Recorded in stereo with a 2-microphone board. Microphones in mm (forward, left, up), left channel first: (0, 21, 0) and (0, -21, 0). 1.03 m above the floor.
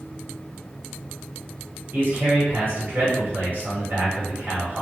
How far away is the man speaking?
About 1.3 m.